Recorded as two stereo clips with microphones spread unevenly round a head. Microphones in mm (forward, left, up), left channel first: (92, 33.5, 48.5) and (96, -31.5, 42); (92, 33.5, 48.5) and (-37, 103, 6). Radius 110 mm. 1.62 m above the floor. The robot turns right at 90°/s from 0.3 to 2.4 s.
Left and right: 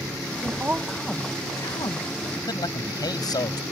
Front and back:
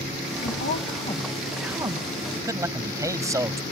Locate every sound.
0.4 s a woman speaking: 45° right; by 2.1 s 105° left
2.4 s a man speaking: 75° left; by 3.6 s 80° left